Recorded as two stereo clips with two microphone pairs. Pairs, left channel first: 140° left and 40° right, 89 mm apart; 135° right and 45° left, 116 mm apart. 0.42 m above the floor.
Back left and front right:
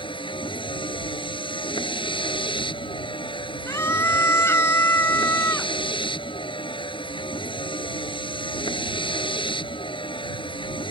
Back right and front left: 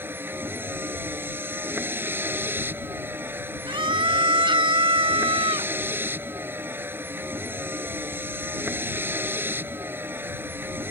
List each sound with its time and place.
0.0 s a vehicle: 120° left
3.7 s a scream: 80° left